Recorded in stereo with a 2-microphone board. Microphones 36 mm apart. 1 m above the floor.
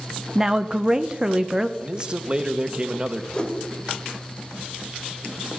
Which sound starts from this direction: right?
A man speaking, at 1.8 s.